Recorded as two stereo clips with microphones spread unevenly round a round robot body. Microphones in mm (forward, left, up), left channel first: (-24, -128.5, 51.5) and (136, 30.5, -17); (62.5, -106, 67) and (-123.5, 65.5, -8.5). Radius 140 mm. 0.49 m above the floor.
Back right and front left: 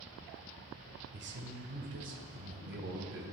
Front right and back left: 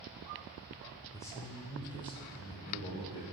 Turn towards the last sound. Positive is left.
turn(degrees=30)